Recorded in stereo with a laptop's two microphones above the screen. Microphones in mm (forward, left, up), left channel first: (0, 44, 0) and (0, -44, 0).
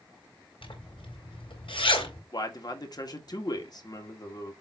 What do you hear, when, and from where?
0.6 s a zipper: 85° left, 3 m
2.3 s a man speaking: 50° left (ahead or behind), 1.9 m